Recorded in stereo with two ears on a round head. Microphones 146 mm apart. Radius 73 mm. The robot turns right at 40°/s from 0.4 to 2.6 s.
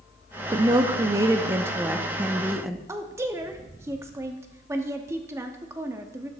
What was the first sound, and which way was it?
A woman speaking, 25° right (ahead or behind).